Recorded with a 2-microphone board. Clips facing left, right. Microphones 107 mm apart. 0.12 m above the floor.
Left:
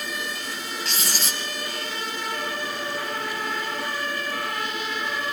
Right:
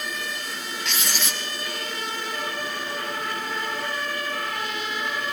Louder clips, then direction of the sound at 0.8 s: Right 2 dB; 35° left (ahead or behind).